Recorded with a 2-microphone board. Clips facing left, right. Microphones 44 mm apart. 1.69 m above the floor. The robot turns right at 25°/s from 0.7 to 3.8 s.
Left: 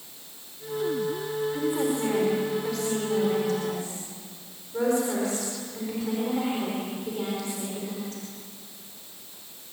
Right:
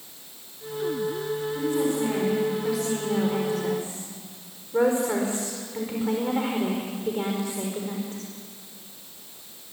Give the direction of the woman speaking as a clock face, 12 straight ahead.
7 o'clock.